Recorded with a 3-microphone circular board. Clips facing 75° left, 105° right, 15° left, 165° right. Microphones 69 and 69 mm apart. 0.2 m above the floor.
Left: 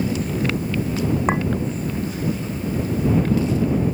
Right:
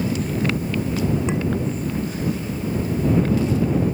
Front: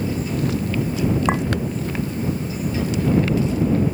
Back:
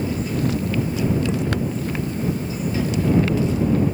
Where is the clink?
35° left.